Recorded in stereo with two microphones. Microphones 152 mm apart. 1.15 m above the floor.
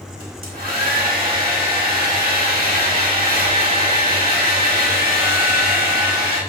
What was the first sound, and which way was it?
A hair dryer, 85° right.